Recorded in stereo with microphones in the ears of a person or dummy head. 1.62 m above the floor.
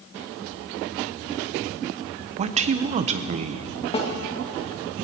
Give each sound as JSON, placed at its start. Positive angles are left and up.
{"t": 2.4, "sound": "a man speaking", "side_deg": -35, "distance_m": 0.7}
{"t": 3.9, "sound": "a snare drum", "side_deg": 35, "distance_m": 1.8}